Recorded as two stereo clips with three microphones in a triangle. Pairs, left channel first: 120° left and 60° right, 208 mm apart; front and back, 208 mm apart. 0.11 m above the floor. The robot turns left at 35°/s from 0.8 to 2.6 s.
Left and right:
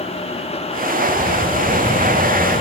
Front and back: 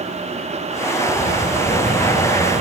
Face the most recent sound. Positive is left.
turn(degrees=-105)